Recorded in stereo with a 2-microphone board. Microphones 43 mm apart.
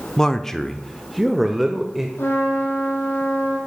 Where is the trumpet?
85° left, 6 m.